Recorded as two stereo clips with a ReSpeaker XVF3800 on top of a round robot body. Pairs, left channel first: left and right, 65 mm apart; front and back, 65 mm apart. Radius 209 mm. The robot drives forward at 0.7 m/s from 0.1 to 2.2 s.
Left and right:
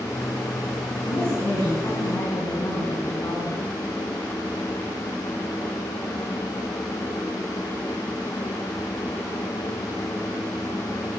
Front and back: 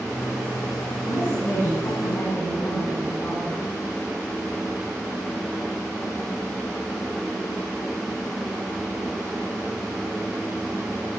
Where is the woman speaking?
50° left, 7.5 m; by 3.7 s 55° left, 7 m.